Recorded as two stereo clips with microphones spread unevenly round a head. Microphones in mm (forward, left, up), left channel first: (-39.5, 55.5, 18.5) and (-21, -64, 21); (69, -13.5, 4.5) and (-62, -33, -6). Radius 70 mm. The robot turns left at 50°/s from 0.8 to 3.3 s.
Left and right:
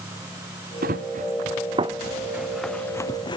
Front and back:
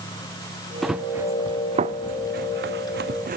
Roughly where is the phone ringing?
I don't hear a phone ringing.